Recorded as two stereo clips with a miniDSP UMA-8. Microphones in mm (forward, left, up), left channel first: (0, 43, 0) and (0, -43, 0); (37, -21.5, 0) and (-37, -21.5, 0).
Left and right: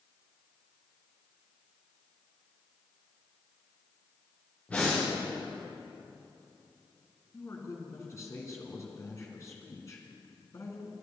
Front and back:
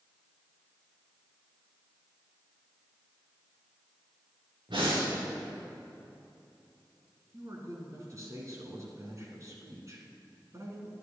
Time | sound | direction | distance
4.7 | breathing | 165° left | 4 m
7.3 | a man speaking | 140° left | 1.9 m